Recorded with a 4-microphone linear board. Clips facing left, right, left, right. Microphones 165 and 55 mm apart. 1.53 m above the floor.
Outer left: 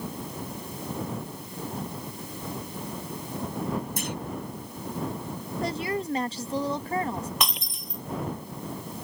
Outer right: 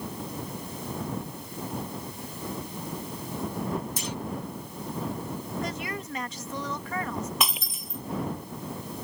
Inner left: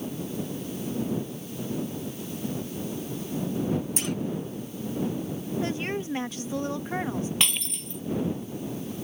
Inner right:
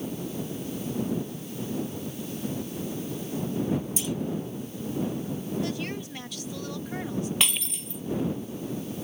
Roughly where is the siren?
I don't hear a siren.